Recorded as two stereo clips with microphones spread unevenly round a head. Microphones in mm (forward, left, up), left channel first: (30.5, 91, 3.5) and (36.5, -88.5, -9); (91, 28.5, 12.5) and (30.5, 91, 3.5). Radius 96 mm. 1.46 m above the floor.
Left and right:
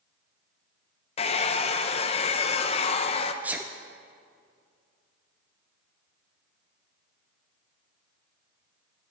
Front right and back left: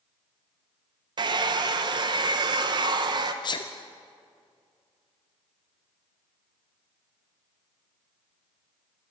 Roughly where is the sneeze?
Ahead.